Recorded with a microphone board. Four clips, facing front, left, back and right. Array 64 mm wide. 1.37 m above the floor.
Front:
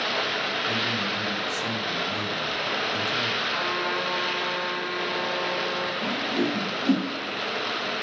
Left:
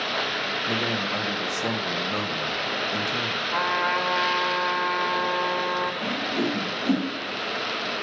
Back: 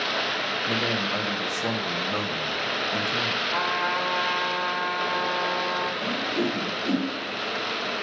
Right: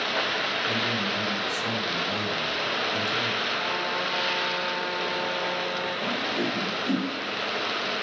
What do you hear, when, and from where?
0.7 s a man speaking: 145° left, 1.1 m
3.5 s a trumpet: 105° left, 1.4 m
6.0 s a whoosh: 40° left, 2 m